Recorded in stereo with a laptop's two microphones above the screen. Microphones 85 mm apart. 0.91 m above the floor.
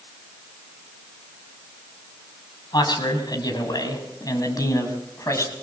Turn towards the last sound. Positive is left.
turn(degrees=35)  # may be behind; listen again after turning